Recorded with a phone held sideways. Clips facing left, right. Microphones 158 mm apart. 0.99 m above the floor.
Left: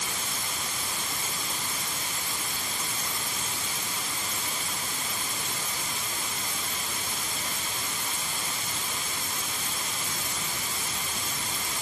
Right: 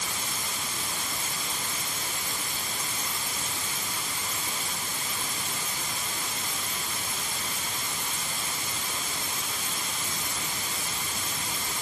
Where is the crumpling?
No crumpling in this recording.